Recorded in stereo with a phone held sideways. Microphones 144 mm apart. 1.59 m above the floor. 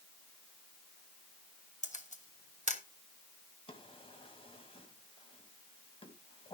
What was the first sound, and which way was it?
A camera shutter, 55° left (ahead or behind).